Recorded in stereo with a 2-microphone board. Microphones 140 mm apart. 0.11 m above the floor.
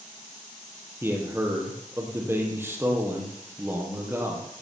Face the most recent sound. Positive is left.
turn(degrees=-15)  # may be behind; listen again after turning